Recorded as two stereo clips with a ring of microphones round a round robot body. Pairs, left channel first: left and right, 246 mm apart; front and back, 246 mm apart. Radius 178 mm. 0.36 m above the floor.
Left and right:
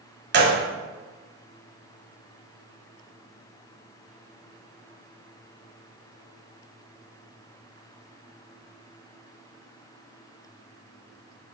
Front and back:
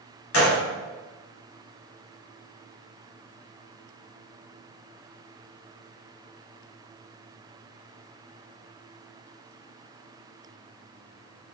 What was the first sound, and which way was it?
A gunshot, 40° right.